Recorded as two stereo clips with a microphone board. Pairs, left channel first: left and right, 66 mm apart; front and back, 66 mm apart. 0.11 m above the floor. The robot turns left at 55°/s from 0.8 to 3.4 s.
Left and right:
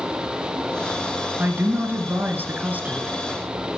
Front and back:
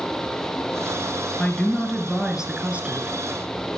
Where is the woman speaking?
55° right, 1.3 m; by 3.2 s 155° right, 1.3 m.